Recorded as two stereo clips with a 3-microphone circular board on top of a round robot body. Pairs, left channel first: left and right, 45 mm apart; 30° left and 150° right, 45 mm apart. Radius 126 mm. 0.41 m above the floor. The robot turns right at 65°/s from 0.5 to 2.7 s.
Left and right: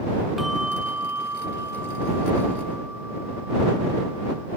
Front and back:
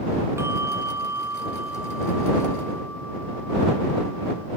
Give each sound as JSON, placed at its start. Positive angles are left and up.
{"t": 0.4, "sound": "a bell", "azimuth_deg": -175}